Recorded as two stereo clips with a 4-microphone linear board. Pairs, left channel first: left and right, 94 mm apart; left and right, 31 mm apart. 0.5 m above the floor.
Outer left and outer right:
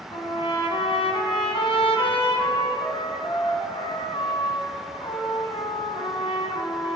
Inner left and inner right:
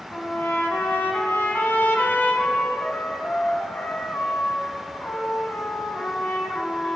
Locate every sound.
0.1 s a trumpet: 80° left, 2.5 m